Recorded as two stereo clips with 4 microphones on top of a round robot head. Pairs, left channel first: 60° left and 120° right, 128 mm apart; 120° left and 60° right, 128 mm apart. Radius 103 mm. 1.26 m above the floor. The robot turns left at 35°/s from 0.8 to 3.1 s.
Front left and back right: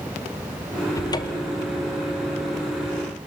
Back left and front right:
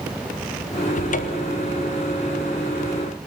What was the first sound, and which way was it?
A cupboard door, 125° left.